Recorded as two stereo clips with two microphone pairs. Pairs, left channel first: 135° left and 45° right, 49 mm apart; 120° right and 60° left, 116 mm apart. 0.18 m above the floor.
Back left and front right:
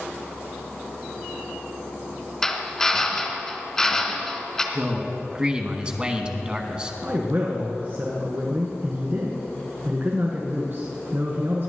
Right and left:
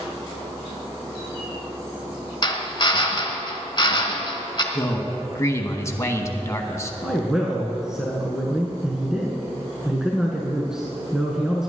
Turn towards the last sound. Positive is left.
turn(degrees=-20)